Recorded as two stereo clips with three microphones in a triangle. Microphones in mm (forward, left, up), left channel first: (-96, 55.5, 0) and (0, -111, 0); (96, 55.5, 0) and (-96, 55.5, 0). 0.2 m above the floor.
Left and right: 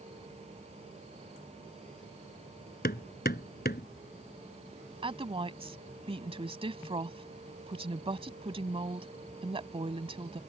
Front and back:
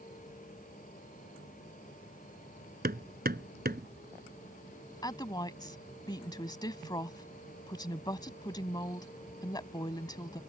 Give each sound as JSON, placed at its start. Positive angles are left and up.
{"t": 2.8, "sound": "hammering", "azimuth_deg": 150}
{"t": 5.0, "sound": "a woman speaking", "azimuth_deg": -45}